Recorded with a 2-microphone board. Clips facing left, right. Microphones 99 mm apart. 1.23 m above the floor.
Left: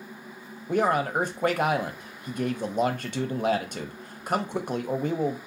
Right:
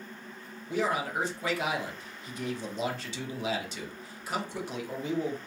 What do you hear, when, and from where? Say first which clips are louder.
0.7 s a man speaking: left 6 dB; 50° left (ahead or behind), 0.5 m